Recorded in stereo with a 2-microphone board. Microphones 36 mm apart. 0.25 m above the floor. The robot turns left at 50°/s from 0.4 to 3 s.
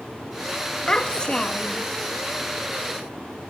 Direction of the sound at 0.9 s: 20° left (ahead or behind).